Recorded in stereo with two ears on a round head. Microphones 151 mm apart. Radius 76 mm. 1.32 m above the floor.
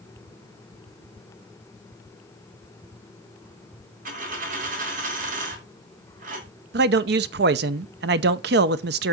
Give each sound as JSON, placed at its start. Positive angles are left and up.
{"t": 4.0, "sound": "a dropped coin", "side_deg": -50, "distance_m": 2.5}
{"t": 6.7, "sound": "a man speaking", "side_deg": -65, "distance_m": 0.7}